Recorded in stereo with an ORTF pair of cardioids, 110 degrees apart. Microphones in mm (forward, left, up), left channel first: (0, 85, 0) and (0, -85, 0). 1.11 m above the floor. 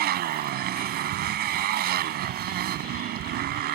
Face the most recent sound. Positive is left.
turn(degrees=-70)